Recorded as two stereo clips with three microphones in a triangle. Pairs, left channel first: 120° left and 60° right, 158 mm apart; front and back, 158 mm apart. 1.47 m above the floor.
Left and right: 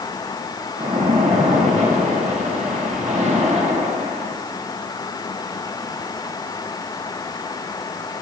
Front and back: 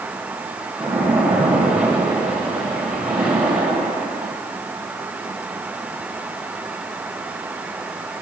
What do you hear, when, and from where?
0.8 s a splash: 95° right, 3 m